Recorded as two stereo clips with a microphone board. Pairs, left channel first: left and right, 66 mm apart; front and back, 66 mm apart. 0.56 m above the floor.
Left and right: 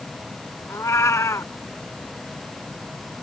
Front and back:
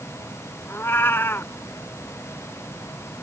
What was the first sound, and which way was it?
A cat meowing, 50° left.